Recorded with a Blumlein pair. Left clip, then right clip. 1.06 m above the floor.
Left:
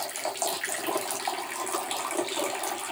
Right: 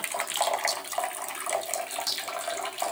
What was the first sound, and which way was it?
Only background noise.